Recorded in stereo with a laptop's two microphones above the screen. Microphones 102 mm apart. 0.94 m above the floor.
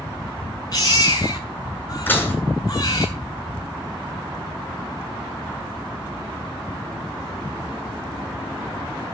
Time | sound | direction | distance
0.7 | a baby crying | 40° left (ahead or behind) | 6 m
2.1 | dishes clattering | 20° left (ahead or behind) | 8 m